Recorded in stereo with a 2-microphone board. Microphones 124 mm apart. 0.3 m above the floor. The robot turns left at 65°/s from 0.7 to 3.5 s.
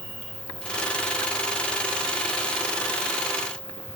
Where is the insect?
20° left, 4.5 m; by 4.0 s 165° right, 4.5 m.